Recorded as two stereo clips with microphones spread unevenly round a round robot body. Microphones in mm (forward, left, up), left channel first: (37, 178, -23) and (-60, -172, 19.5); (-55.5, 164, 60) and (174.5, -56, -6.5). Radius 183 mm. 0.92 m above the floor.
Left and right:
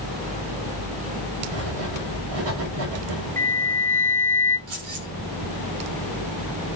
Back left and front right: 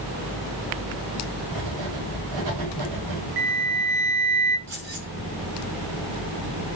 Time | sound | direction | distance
1.5 | writing | 80° right | 6 m
3.4 | a flute | 35° right | 2 m
4.7 | keys jangling | 105° right | 7.5 m